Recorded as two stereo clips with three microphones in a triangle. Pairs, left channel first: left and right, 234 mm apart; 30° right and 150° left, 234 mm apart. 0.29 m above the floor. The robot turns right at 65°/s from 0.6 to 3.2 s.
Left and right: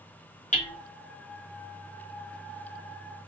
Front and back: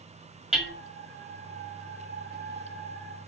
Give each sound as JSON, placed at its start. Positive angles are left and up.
{"t": 0.5, "sound": "hammering", "azimuth_deg": 65, "distance_m": 1.4}